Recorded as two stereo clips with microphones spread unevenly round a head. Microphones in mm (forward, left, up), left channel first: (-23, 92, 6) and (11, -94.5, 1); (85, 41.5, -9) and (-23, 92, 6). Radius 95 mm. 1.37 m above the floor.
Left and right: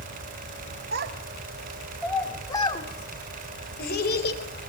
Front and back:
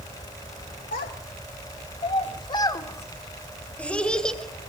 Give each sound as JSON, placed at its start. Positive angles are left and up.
{"t": 0.9, "sound": "a child speaking", "azimuth_deg": -40, "distance_m": 1.9}